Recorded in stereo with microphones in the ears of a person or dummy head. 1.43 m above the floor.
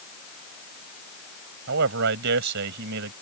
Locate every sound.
1.7 s a man speaking: 60° right (ahead or behind)